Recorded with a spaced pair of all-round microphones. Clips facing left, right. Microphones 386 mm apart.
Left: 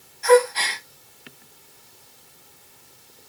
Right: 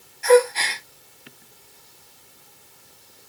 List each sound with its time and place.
0.2 s a gasp: 40° right (ahead or behind), 1.6 m